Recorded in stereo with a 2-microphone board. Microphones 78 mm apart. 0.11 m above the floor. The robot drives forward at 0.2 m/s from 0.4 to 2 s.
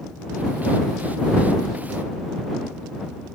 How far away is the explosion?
I don't hear an explosion.